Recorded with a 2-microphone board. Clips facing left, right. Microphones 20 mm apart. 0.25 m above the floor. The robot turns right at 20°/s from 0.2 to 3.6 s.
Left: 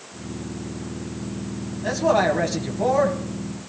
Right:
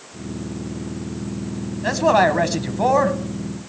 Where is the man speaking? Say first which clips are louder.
Right 3 dB; 40° right (ahead or behind), 1.3 m; by 3.2 s 45° right (ahead or behind), 1.3 m.